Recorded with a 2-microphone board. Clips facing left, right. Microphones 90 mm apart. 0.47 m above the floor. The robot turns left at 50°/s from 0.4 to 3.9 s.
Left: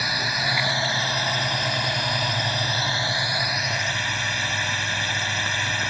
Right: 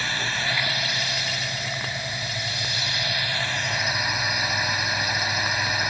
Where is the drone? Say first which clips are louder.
Left 2 dB; 165° left; by 5.9 s 10° right.